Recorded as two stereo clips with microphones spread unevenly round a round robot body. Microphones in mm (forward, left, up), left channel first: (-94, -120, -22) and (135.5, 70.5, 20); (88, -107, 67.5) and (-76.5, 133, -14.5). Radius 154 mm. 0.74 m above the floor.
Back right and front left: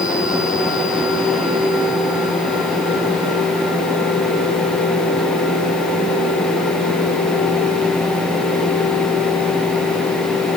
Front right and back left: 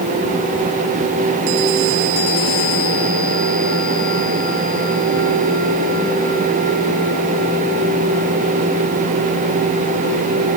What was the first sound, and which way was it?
Only background noise.